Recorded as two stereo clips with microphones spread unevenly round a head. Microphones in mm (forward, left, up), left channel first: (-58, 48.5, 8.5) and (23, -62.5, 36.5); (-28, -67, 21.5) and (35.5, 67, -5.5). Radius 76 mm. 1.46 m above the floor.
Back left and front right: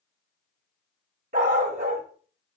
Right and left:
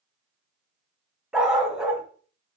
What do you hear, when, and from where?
1.3 s a dog barking: 25° right, 2.5 m